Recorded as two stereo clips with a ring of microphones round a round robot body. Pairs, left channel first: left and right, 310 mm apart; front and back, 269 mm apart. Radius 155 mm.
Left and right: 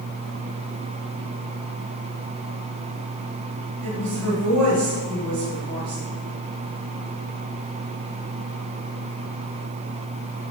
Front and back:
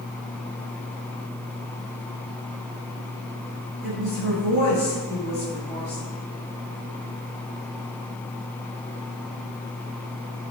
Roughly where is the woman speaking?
Ahead right.